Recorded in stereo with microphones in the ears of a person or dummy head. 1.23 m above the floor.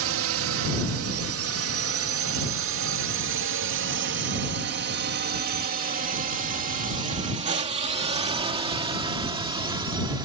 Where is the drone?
70° right (ahead or behind); by 10.3 s 20° right (ahead or behind).